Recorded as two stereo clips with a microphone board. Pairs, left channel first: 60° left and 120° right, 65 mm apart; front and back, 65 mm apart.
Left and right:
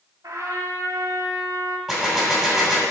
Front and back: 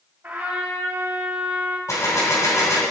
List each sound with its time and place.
0.2 s a trumpet: 125° right, 2 m
1.9 s a gunshot: 30° right, 2.5 m